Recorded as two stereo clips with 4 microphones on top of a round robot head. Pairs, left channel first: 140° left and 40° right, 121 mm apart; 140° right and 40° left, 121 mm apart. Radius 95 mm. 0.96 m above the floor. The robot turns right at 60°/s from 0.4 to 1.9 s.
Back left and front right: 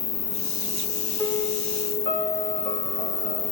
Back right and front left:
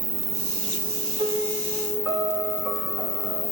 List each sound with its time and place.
0.0 s an insect: 85° left, 1.8 m; by 3.5 s 175° left, 1.8 m
1.2 s a piano: 75° left, 7.5 m; by 3.4 s 120° left, 7.5 m